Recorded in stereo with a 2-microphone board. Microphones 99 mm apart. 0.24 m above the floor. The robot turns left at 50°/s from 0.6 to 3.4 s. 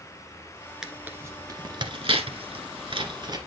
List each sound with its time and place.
0.8 s tearing paper: 5° right (ahead or behind), 1.4 m; by 3.4 s 45° right (ahead or behind), 1.4 m